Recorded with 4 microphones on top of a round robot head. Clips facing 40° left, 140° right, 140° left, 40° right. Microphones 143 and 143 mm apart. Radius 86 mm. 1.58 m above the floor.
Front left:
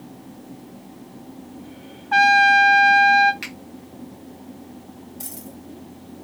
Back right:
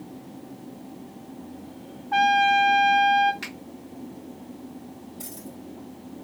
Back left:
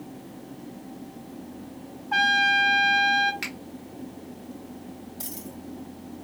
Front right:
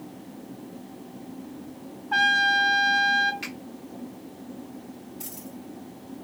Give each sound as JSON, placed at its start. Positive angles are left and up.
{"t": 2.1, "sound": "a trumpet", "azimuth_deg": 55, "distance_m": 0.8}
{"t": 3.4, "sound": "a finger snap", "azimuth_deg": 115, "distance_m": 4.0}
{"t": 5.2, "sound": "a dropped coin", "azimuth_deg": 105, "distance_m": 5.0}